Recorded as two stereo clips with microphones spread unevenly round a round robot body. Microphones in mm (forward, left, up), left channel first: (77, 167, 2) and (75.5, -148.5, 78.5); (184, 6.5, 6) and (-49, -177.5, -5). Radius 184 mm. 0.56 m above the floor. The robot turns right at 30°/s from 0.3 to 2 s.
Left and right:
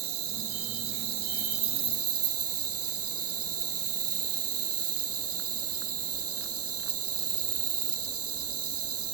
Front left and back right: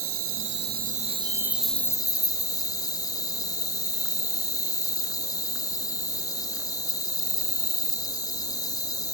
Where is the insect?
95° right, 1.0 m; by 9.2 s 40° right, 1.0 m.